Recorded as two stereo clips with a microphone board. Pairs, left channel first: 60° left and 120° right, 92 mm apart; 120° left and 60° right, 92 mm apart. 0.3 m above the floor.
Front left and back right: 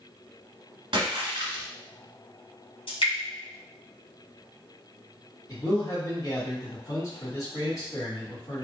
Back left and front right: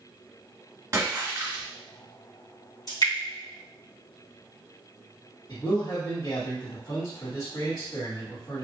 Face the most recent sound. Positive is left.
turn(degrees=95)